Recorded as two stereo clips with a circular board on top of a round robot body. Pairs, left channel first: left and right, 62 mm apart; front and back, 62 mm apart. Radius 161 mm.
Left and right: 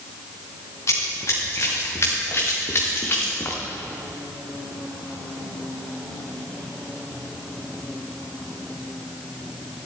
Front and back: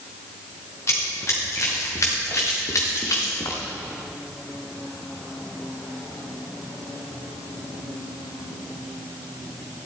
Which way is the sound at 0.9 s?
45° left.